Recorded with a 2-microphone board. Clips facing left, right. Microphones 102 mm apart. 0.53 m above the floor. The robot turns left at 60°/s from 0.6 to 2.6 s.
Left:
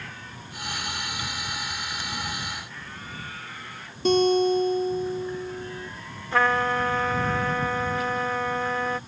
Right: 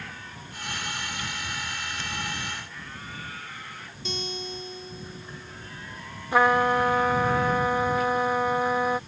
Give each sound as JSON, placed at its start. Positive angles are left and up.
{"t": 4.0, "sound": "a guitar", "side_deg": 50}
{"t": 6.3, "sound": "a trumpet", "side_deg": -15}